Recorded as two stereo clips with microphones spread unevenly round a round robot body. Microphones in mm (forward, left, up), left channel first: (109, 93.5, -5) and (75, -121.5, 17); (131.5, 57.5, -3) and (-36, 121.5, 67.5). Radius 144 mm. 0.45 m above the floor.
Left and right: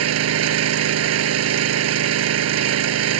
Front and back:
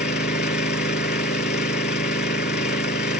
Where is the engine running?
85° right.